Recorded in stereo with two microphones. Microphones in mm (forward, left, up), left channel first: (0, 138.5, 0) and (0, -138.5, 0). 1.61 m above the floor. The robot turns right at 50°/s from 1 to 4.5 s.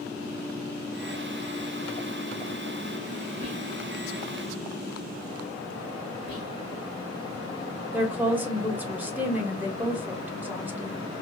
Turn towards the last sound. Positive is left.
turn(degrees=-5)  # may be behind; listen again after turning